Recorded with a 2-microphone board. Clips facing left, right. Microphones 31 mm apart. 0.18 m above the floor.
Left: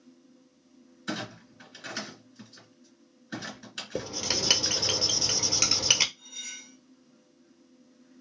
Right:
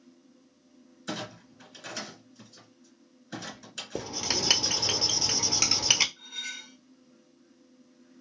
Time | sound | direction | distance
1.1 | a clunk | 20° left (ahead or behind) | 2 m
4.0 | writing | centre (ahead or behind) | 0.8 m
6.2 | cutlery clinking | 40° right (ahead or behind) | 1.0 m